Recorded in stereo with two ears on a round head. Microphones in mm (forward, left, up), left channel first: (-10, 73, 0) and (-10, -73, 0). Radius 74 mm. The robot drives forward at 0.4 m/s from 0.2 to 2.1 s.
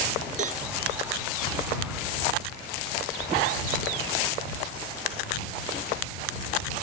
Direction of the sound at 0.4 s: 50° right (ahead or behind).